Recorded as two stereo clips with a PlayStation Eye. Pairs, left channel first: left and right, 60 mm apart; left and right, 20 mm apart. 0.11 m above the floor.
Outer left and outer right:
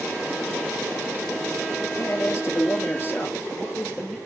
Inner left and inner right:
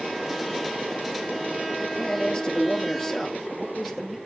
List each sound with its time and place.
1.9 s a man speaking: 55° left (ahead or behind), 2 m; by 4.2 s 20° left (ahead or behind), 2.5 m